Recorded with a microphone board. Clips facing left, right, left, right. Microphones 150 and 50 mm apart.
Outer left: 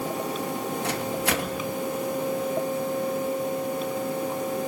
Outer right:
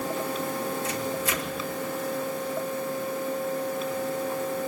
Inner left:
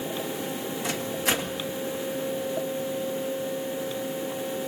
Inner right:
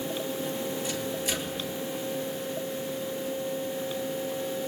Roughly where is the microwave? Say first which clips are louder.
Outer left 2 dB, inner left 3 dB; left.